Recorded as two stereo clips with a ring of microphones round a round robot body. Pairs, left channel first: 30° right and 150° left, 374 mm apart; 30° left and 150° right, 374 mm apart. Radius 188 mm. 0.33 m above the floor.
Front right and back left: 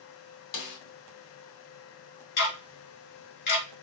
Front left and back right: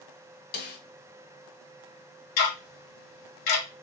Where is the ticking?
25° left, 1.5 m.